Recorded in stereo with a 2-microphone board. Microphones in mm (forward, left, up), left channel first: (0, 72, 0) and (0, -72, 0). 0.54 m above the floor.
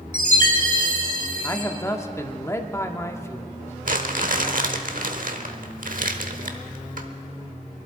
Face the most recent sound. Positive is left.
turn(degrees=-70)  # may be behind; listen again after turning